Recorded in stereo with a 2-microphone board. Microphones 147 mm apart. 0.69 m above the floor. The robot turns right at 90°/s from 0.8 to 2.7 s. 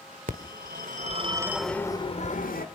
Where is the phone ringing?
75° right, 1.6 m; by 2.7 s 90° left, 1.6 m.